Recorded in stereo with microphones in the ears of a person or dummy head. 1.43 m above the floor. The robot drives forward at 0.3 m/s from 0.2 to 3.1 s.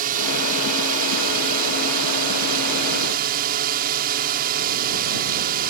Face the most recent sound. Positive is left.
turn(degrees=-55)  # may be behind; listen again after turning